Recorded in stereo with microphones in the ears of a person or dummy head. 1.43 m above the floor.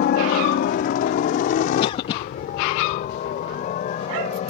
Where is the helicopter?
55° left (ahead or behind); by 4.5 s 40° left (ahead or behind).